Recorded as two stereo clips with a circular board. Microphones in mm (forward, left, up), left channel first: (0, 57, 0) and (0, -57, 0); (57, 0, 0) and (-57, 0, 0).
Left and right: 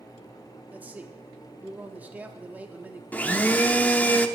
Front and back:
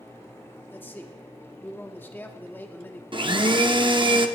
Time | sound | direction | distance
0.7 | a man speaking | 40° right | 1.0 m
3.1 | a blender | 160° left | 0.7 m